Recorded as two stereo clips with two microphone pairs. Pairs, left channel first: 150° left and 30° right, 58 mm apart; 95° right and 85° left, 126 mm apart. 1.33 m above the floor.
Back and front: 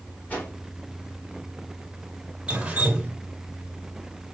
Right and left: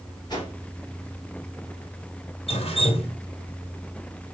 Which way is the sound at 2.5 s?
95° right.